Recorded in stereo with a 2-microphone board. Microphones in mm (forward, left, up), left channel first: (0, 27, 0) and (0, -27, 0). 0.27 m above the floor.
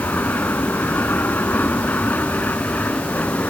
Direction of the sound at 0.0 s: 35° left (ahead or behind).